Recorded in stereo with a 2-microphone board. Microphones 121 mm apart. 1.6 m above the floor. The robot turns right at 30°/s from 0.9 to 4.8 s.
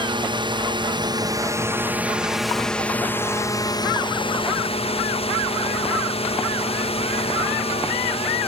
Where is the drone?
45° right; by 8.5 s 70° left.